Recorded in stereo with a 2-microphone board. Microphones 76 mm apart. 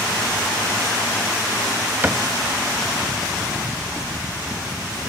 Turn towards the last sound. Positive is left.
turn(degrees=-25)  # may be behind; listen again after turning